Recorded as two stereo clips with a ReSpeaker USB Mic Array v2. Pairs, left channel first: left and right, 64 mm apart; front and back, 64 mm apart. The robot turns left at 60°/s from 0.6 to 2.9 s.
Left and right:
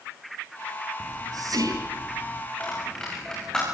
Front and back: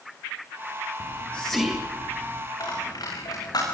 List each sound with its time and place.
1.0 s whispering: 50° right, 9 m; by 2.4 s 135° right, 9 m
2.6 s a dropped coin: 25° left, 9.5 m; by 3.7 s 10° left, 9.5 m